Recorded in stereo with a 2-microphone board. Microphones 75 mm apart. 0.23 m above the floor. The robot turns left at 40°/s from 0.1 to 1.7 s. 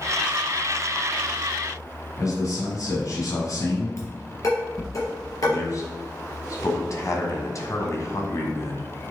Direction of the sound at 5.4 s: 45° left (ahead or behind).